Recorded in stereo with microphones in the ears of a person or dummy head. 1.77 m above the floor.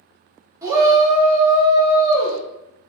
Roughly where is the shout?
Centre.